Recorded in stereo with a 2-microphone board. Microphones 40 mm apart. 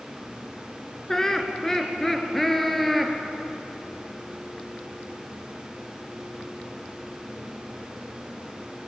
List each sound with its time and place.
1.1 s laughter: 15° left (ahead or behind), 2.5 m; by 3.1 s 5° left (ahead or behind), 3.5 m